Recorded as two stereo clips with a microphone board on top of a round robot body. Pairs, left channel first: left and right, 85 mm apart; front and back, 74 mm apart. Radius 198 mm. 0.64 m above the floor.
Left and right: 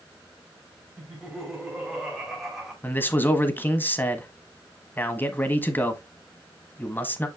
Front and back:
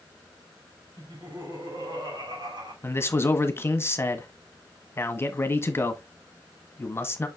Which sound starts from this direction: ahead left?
A man speaking, at 2.8 s.